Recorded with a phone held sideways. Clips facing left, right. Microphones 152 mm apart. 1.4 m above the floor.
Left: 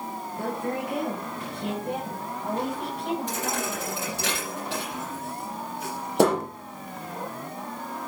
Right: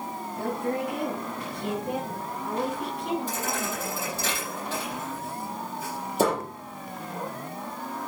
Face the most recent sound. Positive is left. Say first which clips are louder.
# left 1 dB
turn(degrees=70)  # may be behind; listen again after turning